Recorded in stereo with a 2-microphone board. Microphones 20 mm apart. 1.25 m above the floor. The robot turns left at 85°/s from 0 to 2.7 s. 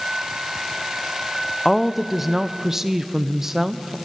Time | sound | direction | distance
1.6 | a woman speaking | 5° left (ahead or behind) | 0.5 m